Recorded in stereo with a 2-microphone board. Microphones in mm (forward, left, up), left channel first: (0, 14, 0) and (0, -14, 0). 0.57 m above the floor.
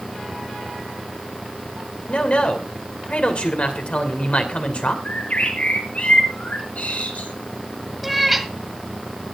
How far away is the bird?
About 6.5 m.